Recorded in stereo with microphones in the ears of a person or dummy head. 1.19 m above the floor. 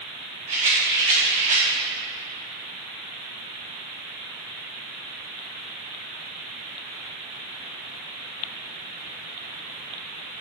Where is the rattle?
35° right (ahead or behind), 2.5 m.